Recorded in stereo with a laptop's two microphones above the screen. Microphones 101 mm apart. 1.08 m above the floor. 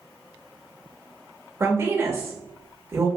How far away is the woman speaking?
About 1.3 m.